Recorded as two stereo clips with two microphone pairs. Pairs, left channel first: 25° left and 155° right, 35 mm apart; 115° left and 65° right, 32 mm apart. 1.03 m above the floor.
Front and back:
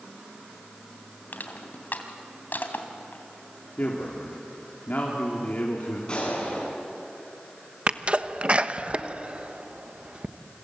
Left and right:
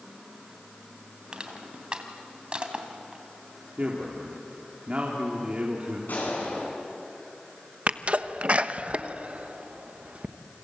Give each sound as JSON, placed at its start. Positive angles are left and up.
{"t": 1.3, "sound": "crushing", "azimuth_deg": -5, "distance_m": 2.5}
{"t": 3.8, "sound": "a man speaking", "azimuth_deg": -15, "distance_m": 3.0}
{"t": 6.1, "sound": "a gunshot", "azimuth_deg": 90, "distance_m": 10.0}
{"t": 7.9, "sound": "a sneeze", "azimuth_deg": -105, "distance_m": 1.1}